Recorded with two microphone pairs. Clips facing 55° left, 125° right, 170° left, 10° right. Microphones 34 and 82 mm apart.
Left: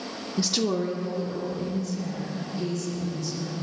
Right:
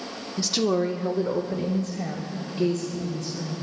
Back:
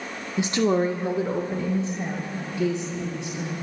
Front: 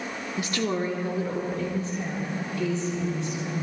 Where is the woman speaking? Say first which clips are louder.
Right 2 dB, back 7 dB; 125° left, 0.8 m; by 3.5 s 120° right, 3.5 m.